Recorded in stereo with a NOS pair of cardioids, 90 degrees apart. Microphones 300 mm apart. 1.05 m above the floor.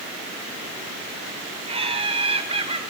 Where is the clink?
I don't hear a clink.